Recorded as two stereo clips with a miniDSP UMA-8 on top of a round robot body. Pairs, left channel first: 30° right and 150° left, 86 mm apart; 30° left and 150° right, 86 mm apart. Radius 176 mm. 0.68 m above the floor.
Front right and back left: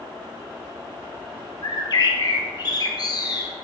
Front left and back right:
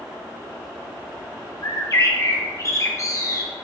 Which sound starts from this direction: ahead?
A bird, at 1.6 s.